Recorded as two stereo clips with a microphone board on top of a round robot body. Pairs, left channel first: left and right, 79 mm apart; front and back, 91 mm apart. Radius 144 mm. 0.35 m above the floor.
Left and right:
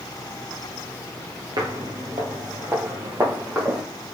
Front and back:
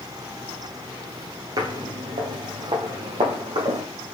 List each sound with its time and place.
1.6 s footsteps: 130° right, 0.5 m; by 3.8 s 160° right, 1.7 m